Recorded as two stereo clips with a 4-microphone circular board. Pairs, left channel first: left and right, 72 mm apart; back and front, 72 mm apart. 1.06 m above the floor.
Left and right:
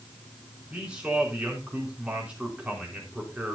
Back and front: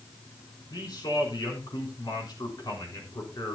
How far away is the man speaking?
About 4 m.